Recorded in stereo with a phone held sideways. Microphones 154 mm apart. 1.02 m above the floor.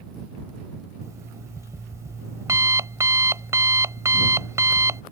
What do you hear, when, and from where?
1.0 s an alarm clock: 20° right (ahead or behind)